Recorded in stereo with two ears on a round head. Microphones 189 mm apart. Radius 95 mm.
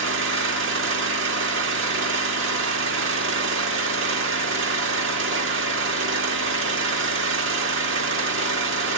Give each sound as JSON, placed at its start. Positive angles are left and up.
{"t": 0.0, "sound": "an engine running", "side_deg": -60, "distance_m": 1.5}